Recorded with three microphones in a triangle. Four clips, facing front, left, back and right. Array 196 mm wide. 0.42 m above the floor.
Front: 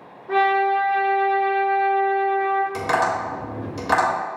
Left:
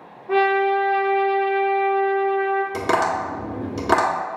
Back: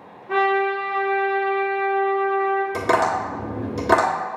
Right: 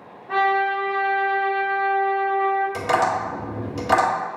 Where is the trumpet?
45° left, 1.7 m.